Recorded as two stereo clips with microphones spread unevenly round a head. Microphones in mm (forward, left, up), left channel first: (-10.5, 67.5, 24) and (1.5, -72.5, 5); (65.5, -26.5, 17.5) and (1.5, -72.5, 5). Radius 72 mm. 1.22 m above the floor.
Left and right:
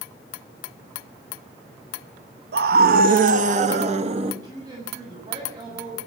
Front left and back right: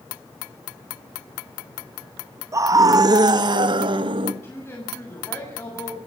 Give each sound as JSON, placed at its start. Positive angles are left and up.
{"t": 2.5, "sound": "a scream", "azimuth_deg": -95, "distance_m": 1.6}
{"t": 4.4, "sound": "a woman speaking", "azimuth_deg": -20, "distance_m": 6.5}